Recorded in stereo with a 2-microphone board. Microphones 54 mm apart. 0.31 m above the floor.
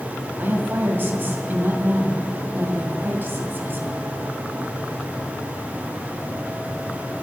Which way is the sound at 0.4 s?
40° right (ahead or behind).